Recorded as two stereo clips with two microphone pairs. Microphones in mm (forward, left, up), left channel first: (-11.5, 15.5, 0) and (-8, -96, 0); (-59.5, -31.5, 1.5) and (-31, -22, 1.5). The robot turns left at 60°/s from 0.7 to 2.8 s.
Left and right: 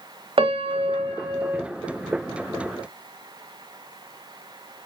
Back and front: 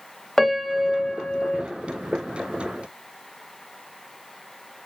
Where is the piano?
95° right, 0.9 m; by 1.6 s 150° right, 0.9 m.